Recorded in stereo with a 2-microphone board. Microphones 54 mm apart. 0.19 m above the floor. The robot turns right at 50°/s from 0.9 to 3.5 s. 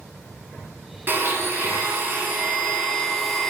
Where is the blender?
115° right, 0.5 m; by 3.5 s 5° left, 0.5 m.